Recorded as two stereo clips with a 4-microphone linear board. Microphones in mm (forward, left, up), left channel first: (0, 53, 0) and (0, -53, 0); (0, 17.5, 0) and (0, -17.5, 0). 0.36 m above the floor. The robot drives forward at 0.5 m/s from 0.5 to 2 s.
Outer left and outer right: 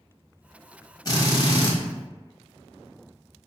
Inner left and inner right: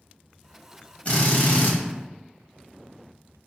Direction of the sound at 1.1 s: 35° left (ahead or behind).